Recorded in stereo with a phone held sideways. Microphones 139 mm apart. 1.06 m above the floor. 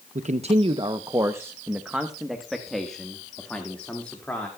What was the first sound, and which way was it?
A man speaking, 60° right (ahead or behind).